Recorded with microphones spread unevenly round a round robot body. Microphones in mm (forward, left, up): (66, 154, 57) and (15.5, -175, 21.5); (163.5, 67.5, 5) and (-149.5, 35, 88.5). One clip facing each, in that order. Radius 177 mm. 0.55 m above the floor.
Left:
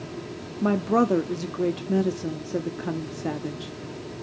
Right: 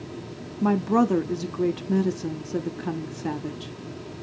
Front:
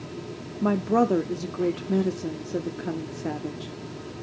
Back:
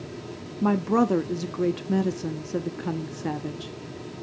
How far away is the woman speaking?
About 0.6 m.